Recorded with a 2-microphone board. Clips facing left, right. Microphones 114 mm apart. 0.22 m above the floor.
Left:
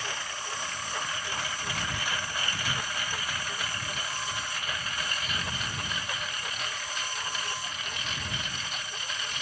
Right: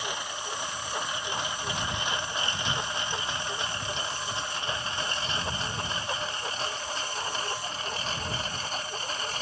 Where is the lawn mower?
15° right (ahead or behind); by 9.4 s 35° right (ahead or behind).